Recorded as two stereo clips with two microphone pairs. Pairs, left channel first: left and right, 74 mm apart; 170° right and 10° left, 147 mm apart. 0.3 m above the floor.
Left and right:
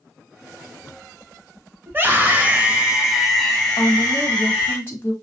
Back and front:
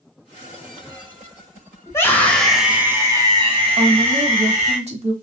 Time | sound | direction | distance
1.9 | a scream | 115° right | 1.5 m
3.8 | a woman speaking | 35° left | 1.8 m